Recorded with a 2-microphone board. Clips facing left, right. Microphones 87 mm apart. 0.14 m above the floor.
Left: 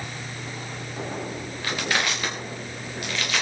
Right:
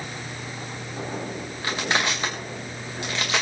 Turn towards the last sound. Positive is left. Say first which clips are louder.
# right 1 dB
turn(degrees=-25)  # may be behind; listen again after turning